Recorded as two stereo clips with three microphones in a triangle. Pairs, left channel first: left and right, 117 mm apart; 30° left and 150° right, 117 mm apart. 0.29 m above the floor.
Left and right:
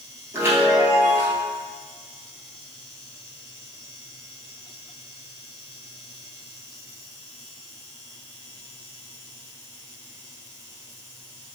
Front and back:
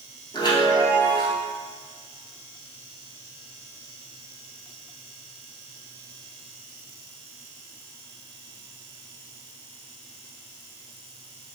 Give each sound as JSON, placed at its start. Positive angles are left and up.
{"t": 0.3, "sound": "a chime", "azimuth_deg": -20, "distance_m": 1.4}